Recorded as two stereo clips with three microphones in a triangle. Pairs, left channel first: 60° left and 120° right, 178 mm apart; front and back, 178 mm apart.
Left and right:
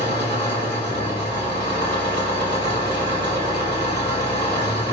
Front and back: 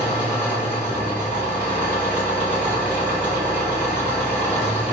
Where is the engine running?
100° right, 1.8 m.